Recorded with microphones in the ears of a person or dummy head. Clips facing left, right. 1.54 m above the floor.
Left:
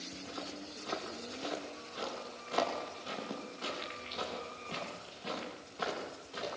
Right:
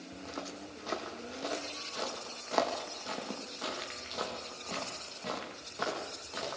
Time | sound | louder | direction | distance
0.1 | footsteps | right 2 dB | 60° right (ahead or behind) | 5.5 m